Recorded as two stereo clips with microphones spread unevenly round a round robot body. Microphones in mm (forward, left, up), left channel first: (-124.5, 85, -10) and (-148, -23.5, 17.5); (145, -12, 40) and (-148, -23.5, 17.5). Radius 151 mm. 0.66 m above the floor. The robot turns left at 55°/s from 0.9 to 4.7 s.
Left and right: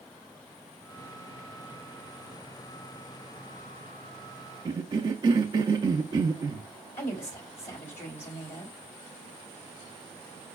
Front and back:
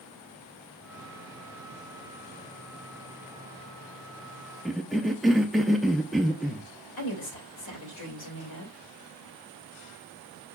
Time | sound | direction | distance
4.7 | a cough | 95° right | 0.5 m
7.0 | a woman speaking | 35° left | 3 m